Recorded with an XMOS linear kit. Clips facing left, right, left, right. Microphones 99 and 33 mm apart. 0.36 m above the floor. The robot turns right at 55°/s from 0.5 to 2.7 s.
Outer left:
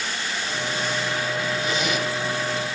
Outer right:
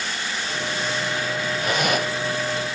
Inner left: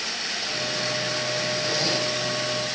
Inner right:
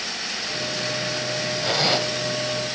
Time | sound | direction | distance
1.6 | a zipper | 55° right (ahead or behind) | 2.0 m